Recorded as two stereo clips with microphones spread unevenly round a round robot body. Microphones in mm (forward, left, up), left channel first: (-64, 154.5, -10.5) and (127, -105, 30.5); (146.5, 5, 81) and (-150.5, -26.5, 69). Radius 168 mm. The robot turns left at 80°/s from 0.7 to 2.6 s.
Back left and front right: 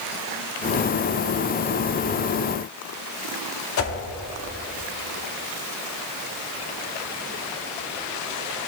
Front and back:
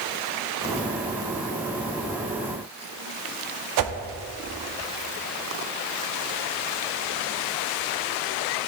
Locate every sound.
3.8 s a whoosh: 175° left, 0.8 m